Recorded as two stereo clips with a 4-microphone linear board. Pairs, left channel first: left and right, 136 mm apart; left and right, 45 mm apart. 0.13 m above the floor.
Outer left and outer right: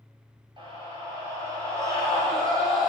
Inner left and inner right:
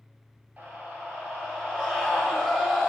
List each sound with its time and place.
0.6 s a scream: 35° right (ahead or behind), 3 m; by 2.9 s 20° right (ahead or behind), 5 m